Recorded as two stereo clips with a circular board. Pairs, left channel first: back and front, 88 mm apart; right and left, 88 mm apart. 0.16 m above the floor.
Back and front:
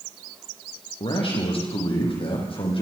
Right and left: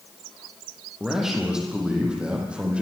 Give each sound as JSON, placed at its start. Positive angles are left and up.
{"t": 1.0, "sound": "a man speaking", "azimuth_deg": 175, "distance_m": 7.5}